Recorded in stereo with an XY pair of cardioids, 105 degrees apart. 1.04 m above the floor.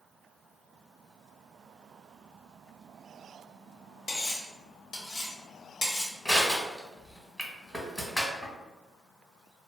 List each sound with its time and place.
4.1 s cutlery clinking: 50° left, 1.0 m
6.2 s crushing: 10° left, 1.1 m